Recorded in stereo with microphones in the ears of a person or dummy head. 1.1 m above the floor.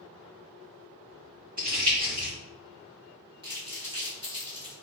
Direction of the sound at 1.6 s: 40° right (ahead or behind).